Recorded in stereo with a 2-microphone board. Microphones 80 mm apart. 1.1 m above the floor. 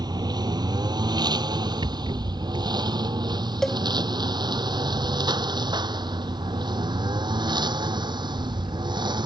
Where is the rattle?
85° right.